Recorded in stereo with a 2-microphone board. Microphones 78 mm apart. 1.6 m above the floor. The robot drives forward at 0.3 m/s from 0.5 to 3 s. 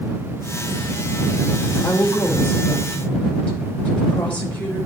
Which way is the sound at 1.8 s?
20° left (ahead or behind).